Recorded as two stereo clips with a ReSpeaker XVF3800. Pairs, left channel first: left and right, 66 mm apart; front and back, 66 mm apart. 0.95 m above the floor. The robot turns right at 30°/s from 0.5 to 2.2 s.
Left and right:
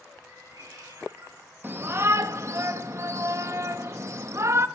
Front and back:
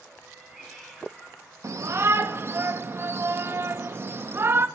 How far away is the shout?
About 1.0 m.